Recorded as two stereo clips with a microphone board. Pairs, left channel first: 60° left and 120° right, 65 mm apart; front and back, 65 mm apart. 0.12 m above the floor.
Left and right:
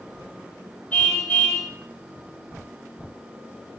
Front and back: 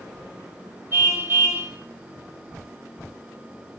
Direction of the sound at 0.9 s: 130° left.